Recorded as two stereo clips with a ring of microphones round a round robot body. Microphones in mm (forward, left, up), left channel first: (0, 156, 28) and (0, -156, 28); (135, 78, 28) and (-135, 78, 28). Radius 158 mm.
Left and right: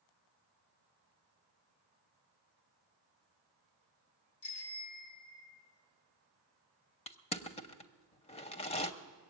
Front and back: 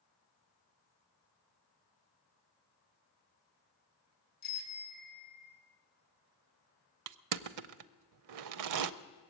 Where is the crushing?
160° left, 0.5 m.